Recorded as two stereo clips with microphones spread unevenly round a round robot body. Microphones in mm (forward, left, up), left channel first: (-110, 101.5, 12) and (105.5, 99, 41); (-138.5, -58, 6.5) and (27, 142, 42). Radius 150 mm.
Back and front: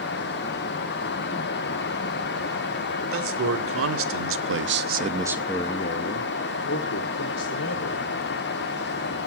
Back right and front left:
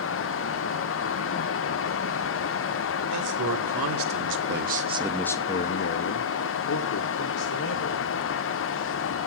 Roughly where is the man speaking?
Ahead.